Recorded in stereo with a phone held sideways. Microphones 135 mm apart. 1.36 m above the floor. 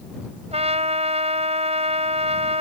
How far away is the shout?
No shout in this recording.